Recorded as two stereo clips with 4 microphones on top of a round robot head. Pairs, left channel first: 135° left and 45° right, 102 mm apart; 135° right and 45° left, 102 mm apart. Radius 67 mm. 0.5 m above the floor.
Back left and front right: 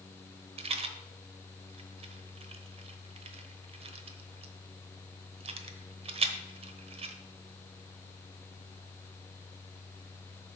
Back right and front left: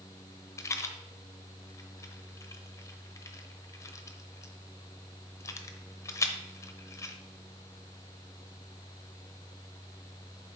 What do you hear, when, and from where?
0.6 s a rattle: 75° right, 0.9 m